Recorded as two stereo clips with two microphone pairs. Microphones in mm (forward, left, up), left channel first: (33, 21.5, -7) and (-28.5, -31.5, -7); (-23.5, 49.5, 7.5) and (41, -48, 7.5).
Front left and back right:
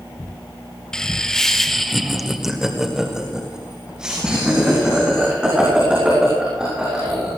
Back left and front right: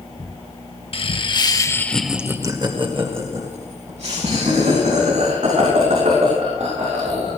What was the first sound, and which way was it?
Laughter, 120° left.